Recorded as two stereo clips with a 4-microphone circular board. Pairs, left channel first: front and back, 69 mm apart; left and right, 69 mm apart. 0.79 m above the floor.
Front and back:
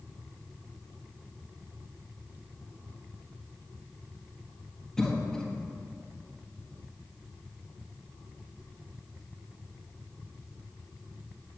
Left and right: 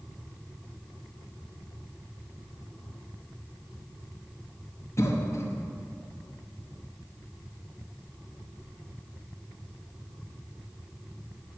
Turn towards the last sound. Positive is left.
turn(degrees=80)